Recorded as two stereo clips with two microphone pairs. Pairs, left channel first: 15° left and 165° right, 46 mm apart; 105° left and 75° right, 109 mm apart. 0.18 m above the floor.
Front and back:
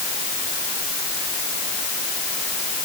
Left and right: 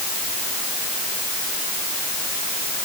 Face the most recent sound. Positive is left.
No sound to turn to.